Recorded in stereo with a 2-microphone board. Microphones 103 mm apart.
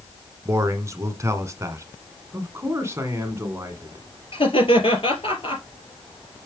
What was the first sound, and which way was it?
A man speaking, 30° right (ahead or behind).